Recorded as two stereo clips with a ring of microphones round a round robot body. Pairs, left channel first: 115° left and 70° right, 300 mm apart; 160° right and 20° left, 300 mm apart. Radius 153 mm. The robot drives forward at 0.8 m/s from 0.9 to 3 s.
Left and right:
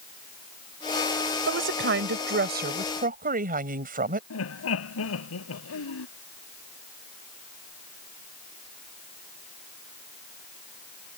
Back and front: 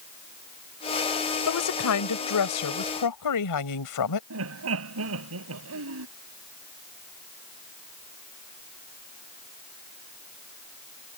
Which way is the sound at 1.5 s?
120° right.